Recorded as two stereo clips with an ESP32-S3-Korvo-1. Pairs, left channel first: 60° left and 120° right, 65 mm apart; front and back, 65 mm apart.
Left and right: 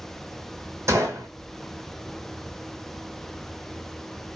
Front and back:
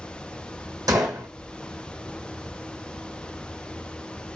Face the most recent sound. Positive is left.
turn(degrees=-165)